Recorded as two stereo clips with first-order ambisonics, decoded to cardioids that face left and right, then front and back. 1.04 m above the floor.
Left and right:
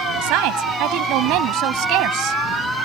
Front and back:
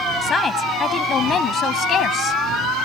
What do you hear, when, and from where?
0.2 s a woman speaking: 70° right; by 2.4 s 55° right